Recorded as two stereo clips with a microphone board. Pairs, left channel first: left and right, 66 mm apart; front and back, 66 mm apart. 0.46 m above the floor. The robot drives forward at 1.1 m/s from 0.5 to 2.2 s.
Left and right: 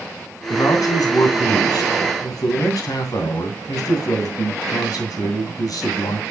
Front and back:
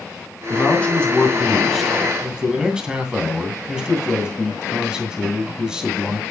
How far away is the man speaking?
About 3 m.